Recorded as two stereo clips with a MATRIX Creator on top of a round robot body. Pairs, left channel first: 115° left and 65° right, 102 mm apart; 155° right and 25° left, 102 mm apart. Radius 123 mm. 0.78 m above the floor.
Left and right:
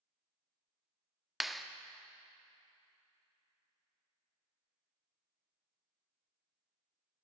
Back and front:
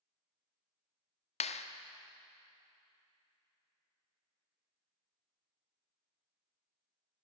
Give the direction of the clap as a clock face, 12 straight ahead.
5 o'clock.